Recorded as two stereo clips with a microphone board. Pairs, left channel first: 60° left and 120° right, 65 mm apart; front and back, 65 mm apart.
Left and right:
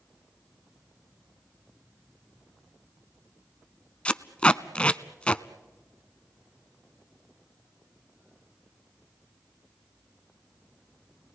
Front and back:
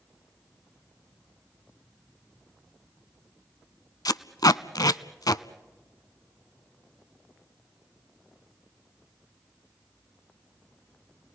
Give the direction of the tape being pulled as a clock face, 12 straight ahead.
12 o'clock.